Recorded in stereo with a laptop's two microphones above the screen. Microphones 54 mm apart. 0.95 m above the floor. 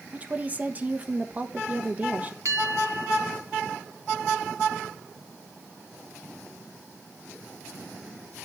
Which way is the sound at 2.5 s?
65° right (ahead or behind).